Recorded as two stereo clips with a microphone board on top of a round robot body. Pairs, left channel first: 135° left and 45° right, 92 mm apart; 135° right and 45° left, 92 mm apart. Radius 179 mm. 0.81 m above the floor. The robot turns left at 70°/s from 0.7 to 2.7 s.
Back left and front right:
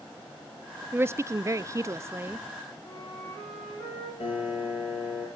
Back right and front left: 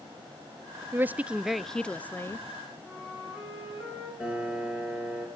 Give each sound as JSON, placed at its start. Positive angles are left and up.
{"t": 0.9, "sound": "a woman speaking", "azimuth_deg": 0, "distance_m": 0.6}
{"t": 2.8, "sound": "a flute", "azimuth_deg": 140, "distance_m": 8.0}
{"t": 4.2, "sound": "a piano", "azimuth_deg": 125, "distance_m": 5.0}